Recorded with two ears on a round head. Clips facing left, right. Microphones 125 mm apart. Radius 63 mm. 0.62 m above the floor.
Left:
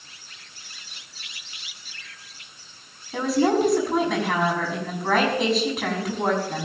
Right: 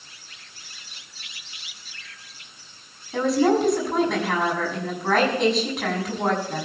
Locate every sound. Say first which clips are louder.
3.1 s a woman speaking: right 1 dB; centre (ahead or behind), 6 m